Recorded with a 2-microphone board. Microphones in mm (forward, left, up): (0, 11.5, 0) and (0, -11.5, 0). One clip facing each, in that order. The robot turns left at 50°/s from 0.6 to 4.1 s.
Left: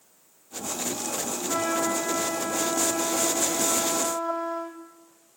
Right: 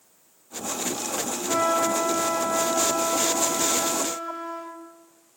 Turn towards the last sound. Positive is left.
turn(degrees=140)